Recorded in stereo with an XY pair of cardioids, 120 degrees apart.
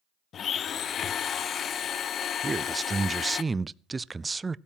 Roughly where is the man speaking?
Ahead.